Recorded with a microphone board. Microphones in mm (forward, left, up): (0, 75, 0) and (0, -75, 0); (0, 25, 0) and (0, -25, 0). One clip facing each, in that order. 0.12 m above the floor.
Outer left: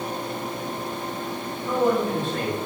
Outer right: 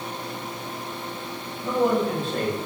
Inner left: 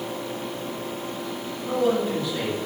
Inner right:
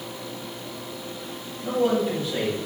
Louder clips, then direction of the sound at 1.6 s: Even, even; 35° right (ahead or behind).